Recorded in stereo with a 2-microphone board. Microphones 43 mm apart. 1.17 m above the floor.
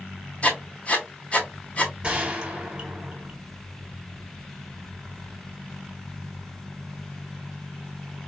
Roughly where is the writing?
Left.